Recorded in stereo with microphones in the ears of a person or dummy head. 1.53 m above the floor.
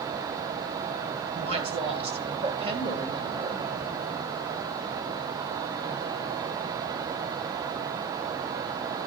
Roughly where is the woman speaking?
Right.